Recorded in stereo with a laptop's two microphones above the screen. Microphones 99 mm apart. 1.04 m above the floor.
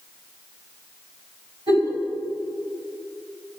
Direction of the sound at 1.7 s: 50° right (ahead or behind).